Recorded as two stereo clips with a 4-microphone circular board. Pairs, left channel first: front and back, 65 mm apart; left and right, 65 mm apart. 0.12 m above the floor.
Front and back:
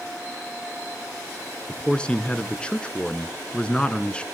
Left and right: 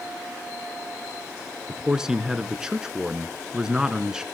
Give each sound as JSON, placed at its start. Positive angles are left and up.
{"t": 1.7, "sound": "a man speaking", "azimuth_deg": -30, "distance_m": 1.1}